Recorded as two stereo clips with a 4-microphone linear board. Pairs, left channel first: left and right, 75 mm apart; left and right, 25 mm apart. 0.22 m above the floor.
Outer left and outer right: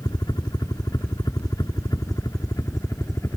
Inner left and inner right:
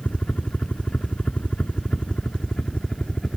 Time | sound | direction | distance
0.0 | a helicopter | 60° left (ahead or behind) | ?